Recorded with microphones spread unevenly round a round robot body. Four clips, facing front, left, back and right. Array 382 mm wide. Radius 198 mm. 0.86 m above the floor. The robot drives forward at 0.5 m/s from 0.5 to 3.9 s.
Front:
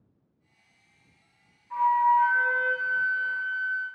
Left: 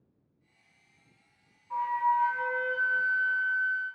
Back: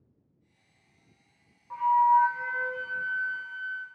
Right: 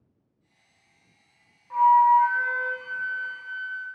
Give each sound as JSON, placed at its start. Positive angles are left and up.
{"t": 1.7, "sound": "a flute", "azimuth_deg": -140, "distance_m": 0.6}